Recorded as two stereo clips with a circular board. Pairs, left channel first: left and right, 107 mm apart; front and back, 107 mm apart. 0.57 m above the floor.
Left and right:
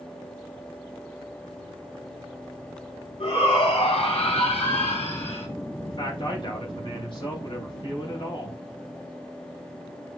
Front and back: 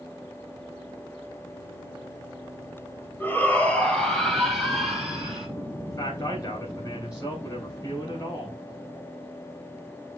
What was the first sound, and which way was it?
A shout, 70° left.